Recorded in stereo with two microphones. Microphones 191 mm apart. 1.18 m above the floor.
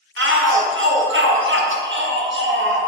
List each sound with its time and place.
0.2 s a shout: 85° right, 1.2 m